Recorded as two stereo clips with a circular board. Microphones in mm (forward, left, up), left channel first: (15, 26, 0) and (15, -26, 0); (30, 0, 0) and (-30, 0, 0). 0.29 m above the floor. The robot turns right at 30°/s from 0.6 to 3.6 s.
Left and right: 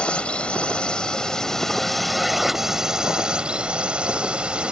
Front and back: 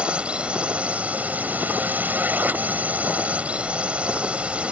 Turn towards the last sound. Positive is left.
turn(degrees=-135)